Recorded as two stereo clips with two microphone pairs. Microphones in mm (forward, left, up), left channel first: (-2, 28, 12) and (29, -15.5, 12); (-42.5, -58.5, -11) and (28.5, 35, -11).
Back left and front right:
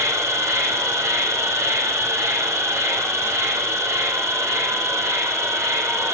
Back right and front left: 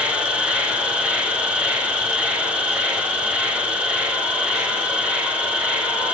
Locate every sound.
0.0 s an insect: 30° right, 2.5 m